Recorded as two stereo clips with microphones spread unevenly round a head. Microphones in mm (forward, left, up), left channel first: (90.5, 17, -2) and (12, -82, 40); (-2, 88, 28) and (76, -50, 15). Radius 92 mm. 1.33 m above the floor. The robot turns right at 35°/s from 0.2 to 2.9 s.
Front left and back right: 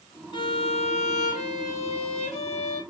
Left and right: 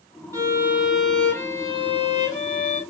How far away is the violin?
About 2.5 m.